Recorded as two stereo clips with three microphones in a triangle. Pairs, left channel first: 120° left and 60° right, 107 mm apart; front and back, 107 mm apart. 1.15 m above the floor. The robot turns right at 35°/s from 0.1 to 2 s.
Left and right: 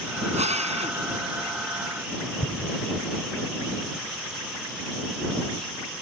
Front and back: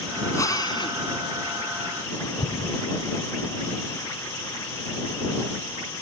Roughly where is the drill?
Ahead right.